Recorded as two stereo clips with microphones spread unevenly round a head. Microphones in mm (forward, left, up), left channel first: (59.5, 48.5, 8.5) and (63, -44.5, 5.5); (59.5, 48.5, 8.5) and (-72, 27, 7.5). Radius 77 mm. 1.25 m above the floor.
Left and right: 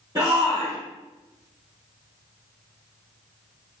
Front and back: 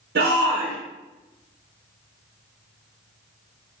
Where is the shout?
165° right, 1.9 m.